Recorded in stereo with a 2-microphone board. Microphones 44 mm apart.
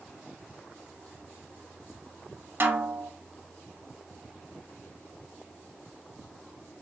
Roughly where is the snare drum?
Right.